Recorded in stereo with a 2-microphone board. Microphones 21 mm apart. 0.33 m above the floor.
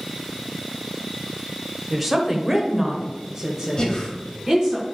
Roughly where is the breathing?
Left.